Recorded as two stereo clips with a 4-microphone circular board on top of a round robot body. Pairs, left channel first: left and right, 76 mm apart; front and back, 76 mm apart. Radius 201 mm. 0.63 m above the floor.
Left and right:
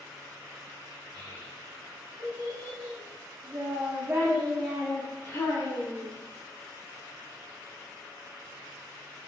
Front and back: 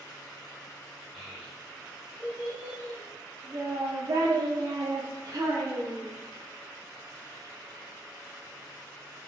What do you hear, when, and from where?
1.1 s a child speaking: 95° right, 1.8 m; by 6.1 s 125° left, 1.1 m